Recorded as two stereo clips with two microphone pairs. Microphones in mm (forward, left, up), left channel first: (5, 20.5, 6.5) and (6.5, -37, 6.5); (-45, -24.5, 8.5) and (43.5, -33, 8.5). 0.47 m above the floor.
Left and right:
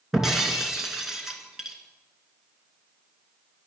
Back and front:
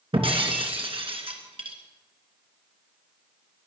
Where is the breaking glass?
5° right, 2.5 m.